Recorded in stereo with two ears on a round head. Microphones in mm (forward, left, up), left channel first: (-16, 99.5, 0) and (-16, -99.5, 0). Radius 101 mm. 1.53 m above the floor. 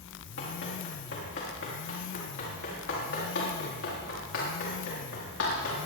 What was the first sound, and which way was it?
Running footsteps, 50° left (ahead or behind).